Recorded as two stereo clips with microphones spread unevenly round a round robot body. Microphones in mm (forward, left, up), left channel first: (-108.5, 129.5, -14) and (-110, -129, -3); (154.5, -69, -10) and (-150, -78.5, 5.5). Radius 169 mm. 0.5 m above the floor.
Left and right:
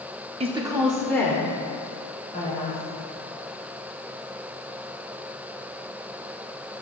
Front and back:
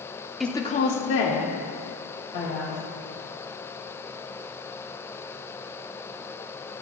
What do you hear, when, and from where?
0.4 s a woman speaking: 80° right, 0.7 m; by 2.8 s 25° left, 2.5 m